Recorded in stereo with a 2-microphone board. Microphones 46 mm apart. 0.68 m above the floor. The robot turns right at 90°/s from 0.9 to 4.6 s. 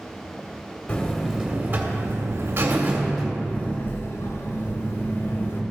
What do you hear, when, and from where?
0.9 s a buzzer: 155° left, 1.6 m; by 5.6 s 125° left, 1.6 m